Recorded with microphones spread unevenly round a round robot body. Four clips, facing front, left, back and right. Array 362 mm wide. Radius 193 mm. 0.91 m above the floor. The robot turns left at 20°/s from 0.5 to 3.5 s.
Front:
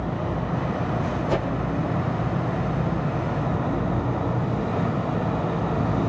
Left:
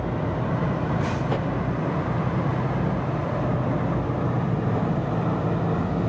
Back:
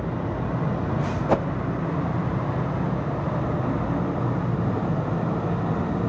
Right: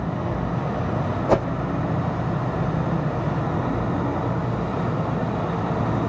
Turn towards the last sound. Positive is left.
turn(degrees=-155)